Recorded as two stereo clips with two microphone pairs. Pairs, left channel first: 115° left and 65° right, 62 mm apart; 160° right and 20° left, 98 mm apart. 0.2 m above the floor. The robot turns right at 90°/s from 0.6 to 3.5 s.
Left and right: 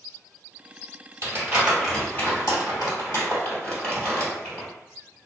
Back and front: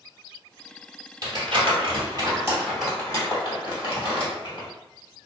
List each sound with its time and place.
1.2 s crumpling: 30° right, 2.0 m; by 4.7 s 175° left, 2.0 m